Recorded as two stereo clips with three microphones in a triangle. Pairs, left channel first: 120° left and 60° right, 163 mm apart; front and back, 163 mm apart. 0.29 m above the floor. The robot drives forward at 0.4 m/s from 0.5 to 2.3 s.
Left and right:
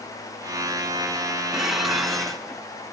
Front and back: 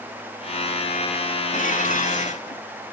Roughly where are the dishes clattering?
Ahead left.